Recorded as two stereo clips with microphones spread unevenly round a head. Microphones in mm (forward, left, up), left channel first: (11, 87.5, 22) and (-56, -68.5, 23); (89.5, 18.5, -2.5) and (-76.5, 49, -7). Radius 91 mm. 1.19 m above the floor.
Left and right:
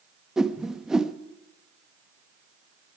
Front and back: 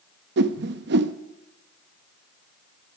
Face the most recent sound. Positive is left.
turn(degrees=160)